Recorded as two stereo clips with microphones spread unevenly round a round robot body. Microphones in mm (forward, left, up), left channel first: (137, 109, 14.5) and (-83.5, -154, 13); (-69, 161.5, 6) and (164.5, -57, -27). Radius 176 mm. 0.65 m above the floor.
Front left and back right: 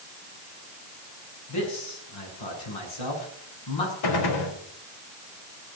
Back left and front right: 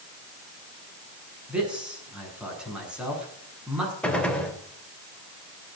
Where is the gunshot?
50° left, 3 m.